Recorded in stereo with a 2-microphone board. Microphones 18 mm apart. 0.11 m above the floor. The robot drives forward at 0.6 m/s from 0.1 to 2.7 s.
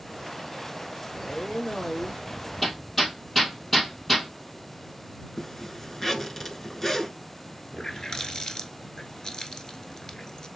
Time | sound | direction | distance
1.1 | a man speaking | 45° left (ahead or behind) | 4 m
2.6 | hammering | 10° left (ahead or behind) | 1.7 m
5.4 | a zipper | 25° left (ahead or behind) | 0.9 m
7.7 | a running tap | 40° left (ahead or behind) | 0.9 m